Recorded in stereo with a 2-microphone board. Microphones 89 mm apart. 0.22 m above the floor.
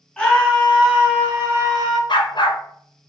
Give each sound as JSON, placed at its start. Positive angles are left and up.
{"t": 0.2, "sound": "a scream", "side_deg": 5, "distance_m": 1.4}
{"t": 2.1, "sound": "a dog barking", "side_deg": 60, "distance_m": 0.9}